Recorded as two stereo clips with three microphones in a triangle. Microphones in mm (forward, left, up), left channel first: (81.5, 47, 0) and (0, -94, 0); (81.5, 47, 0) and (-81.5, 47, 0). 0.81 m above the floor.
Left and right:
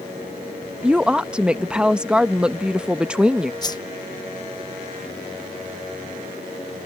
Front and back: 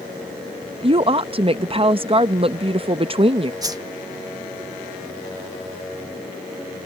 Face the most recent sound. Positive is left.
turn(degrees=115)